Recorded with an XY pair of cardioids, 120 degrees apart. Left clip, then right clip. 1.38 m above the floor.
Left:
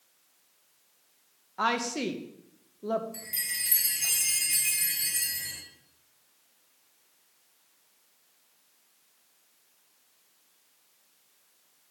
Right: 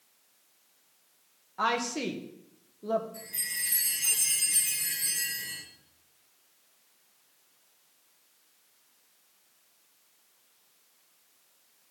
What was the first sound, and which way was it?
A woman speaking, 15° left.